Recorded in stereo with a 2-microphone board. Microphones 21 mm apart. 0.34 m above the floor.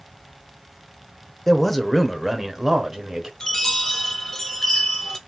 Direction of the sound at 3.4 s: 15° left (ahead or behind).